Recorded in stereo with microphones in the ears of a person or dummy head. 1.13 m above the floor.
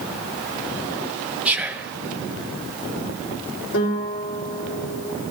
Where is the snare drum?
No snare drum in this recording.